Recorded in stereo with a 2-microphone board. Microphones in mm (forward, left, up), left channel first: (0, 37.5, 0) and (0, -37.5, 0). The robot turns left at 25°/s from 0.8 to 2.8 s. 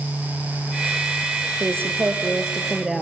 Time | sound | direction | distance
1.6 | a woman speaking | 30° right (ahead or behind) | 3 m